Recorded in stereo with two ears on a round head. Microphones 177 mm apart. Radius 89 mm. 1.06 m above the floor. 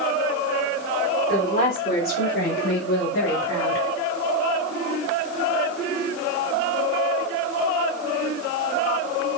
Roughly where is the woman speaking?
Left.